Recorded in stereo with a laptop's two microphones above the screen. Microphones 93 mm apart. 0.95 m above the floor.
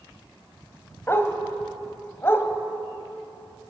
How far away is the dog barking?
About 2.5 m.